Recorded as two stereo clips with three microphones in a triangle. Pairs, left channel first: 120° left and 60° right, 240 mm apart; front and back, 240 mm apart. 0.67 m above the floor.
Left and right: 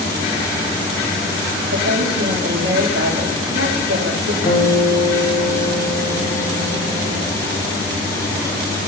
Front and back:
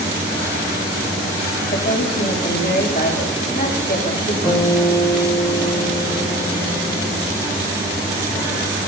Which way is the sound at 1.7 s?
50° right.